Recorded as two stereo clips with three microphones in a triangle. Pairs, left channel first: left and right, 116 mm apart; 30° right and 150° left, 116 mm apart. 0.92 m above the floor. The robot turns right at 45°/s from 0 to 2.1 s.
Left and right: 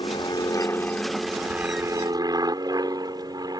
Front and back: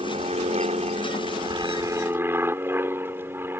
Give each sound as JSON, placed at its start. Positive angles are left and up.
{"t": 0.0, "sound": "an aircraft", "azimuth_deg": 125}